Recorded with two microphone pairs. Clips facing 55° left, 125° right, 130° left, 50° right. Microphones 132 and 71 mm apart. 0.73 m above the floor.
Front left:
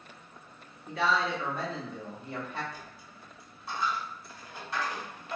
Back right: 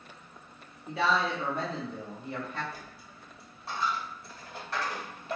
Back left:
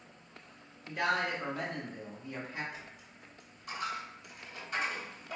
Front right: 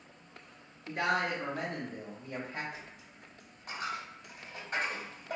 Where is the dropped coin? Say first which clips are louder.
Even, even; 100° right, 1.3 m.